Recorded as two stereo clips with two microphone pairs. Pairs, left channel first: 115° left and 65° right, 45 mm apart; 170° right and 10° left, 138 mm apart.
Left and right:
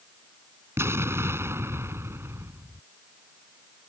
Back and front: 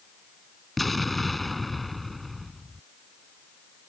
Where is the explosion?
85° right.